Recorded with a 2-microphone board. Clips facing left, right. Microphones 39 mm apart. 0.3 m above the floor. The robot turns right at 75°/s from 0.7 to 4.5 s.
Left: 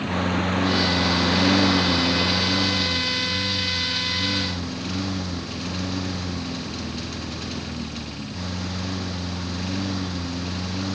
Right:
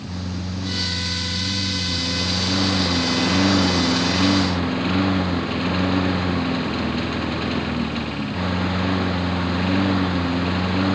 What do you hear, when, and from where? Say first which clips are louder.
0.0 s a lawn mower: left 7 dB; 40° left; by 11.0 s 35° right